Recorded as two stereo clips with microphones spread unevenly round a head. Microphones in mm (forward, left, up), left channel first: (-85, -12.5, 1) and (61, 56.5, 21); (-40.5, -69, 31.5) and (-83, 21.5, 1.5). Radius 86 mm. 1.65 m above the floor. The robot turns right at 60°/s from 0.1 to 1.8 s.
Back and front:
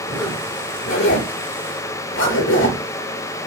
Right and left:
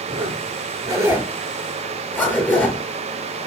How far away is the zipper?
About 6 m.